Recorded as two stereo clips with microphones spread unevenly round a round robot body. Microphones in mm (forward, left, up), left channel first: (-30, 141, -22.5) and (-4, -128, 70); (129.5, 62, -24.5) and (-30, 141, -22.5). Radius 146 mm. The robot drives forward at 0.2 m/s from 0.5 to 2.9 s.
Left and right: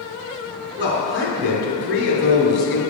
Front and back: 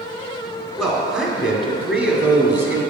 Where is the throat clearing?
No throat clearing in this recording.